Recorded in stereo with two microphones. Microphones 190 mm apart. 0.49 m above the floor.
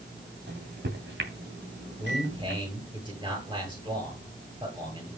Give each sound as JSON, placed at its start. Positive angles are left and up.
{"t": 0.5, "sound": "a microwave", "side_deg": -75, "distance_m": 2.5}
{"t": 2.0, "sound": "a man speaking", "side_deg": -25, "distance_m": 9.0}